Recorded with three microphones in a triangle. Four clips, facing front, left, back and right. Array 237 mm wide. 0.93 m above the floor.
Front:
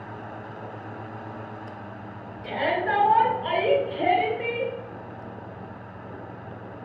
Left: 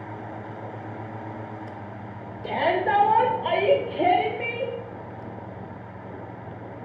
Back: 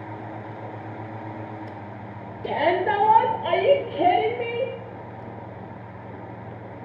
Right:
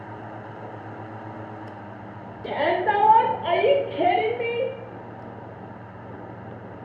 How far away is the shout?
About 3 m.